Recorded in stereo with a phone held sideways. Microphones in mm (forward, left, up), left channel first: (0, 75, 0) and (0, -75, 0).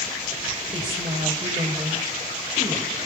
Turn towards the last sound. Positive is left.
turn(degrees=-35)  # may be behind; listen again after turning